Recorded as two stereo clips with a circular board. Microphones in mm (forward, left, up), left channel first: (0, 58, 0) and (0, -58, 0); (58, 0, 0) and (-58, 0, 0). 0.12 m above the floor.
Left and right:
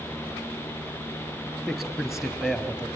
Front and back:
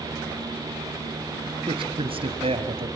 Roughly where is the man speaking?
Behind.